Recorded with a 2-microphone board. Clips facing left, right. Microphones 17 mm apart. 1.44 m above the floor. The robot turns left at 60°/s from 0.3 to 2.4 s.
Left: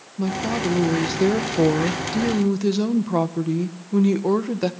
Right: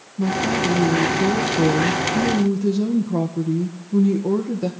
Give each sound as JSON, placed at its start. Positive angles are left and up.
{"t": 0.2, "sound": "a woman speaking", "azimuth_deg": 160, "distance_m": 1.4}